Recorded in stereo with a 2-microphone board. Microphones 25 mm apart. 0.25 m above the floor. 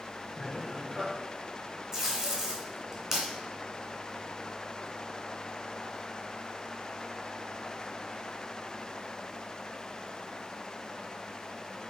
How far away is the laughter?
About 3.5 m.